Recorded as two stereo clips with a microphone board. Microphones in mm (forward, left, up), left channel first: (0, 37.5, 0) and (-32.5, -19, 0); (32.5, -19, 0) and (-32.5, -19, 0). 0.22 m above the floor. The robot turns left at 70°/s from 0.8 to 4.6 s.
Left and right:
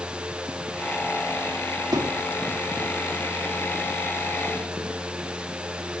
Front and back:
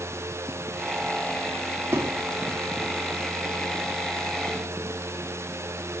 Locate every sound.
1.9 s a thud: 120° right, 4.5 m; by 2.3 s 150° right, 4.5 m